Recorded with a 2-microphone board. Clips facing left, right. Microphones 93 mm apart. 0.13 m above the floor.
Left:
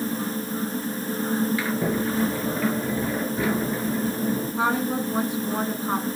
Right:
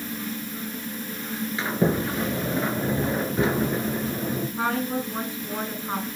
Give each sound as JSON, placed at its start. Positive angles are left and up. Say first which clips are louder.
{"t": 1.6, "sound": "a sliding door", "louder": "right 1 dB", "side_deg": -25, "distance_m": 1.6}
{"t": 4.6, "sound": "a woman speaking", "louder": "left 2 dB", "side_deg": 20, "distance_m": 1.2}